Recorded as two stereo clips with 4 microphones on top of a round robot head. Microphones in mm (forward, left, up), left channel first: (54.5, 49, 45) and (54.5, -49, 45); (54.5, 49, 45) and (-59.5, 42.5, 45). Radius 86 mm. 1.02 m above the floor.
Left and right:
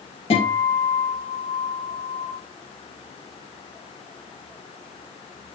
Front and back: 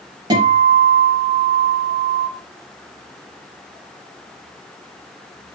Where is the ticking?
I don't hear ticking.